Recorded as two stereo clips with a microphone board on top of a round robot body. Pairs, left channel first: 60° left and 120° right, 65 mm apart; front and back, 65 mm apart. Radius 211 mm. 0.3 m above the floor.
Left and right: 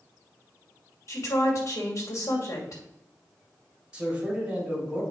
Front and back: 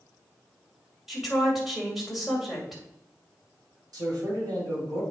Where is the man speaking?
165° left, 3.5 m.